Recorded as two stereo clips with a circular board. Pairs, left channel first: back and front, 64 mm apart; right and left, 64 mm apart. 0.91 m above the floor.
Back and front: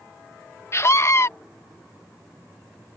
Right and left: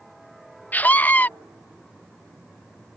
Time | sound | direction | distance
0.7 | a scream | 145° right | ?